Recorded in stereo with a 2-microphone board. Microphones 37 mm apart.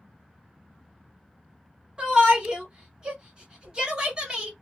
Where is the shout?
25° right (ahead or behind), 1.3 m.